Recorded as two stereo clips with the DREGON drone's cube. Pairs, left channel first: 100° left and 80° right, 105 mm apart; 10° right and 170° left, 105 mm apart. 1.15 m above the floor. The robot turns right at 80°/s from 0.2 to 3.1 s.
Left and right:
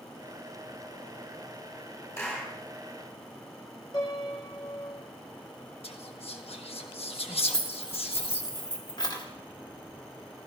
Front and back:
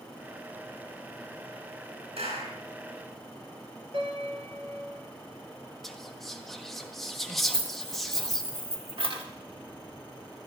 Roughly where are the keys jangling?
Behind left.